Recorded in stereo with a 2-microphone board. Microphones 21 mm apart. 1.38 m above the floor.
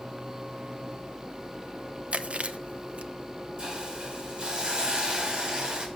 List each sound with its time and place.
2.1 s chewing: 65° right (ahead or behind), 0.9 m
3.6 s a hiss: 50° right (ahead or behind), 4 m